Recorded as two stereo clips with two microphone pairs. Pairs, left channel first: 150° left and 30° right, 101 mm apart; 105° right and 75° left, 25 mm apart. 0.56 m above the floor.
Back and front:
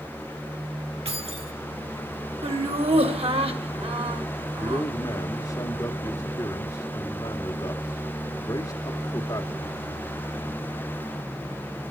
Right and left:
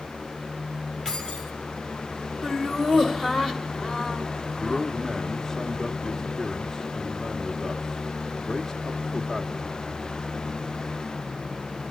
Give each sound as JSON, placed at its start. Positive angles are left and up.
{"t": 1.1, "sound": "keys jangling", "azimuth_deg": -30, "distance_m": 4.0}
{"t": 2.4, "sound": "laughter", "azimuth_deg": -30, "distance_m": 2.5}
{"t": 4.5, "sound": "a man speaking", "azimuth_deg": -170, "distance_m": 1.3}